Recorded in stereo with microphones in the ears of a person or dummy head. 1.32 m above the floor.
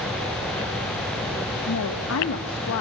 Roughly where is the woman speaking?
Left.